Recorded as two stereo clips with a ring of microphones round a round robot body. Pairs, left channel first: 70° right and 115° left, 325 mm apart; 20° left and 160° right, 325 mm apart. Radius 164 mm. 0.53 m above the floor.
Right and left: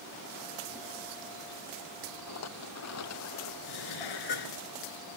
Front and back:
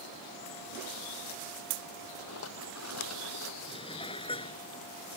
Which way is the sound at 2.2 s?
25° right.